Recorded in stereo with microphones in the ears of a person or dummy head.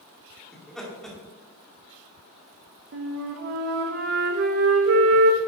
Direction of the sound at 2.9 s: 40° right (ahead or behind).